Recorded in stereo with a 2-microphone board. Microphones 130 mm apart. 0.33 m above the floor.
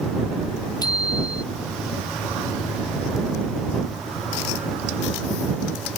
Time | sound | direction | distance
0.8 | a bicycle bell | 30° left (ahead or behind) | ?